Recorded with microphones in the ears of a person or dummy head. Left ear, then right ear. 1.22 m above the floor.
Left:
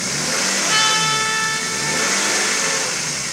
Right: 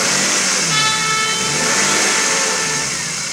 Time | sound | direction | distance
0.6 | a trumpet | 20° left (ahead or behind) | 1.0 m